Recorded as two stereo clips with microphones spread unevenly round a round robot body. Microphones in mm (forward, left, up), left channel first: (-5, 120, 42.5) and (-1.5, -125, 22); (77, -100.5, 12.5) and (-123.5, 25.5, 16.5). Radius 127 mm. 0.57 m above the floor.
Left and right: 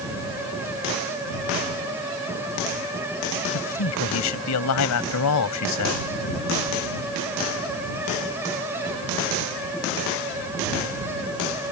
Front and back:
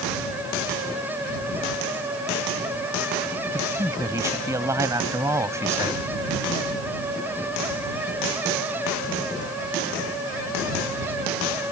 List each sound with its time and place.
3.5 s a man speaking: 70° left